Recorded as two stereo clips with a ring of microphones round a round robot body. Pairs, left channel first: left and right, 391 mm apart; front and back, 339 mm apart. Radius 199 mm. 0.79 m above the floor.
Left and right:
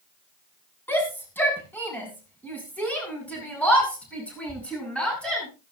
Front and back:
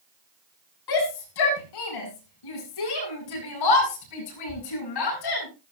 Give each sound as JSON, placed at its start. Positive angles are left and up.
{"t": 0.9, "sound": "a shout", "azimuth_deg": 5, "distance_m": 7.5}